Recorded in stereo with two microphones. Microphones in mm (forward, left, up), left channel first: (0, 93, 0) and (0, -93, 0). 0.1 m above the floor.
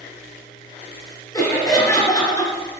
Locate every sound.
1.3 s laughter: 20° left (ahead or behind), 1.2 m